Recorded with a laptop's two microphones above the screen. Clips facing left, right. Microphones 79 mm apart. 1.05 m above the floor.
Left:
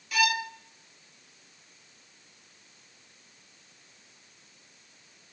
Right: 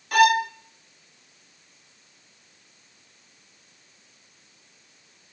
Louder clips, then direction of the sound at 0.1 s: Right 10 dB; 50° right (ahead or behind).